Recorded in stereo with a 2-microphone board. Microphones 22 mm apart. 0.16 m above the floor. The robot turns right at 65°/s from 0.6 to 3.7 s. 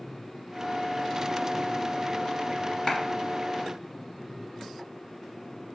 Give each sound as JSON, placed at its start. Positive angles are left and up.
{"t": 2.9, "sound": "a clap", "side_deg": 30, "distance_m": 1.1}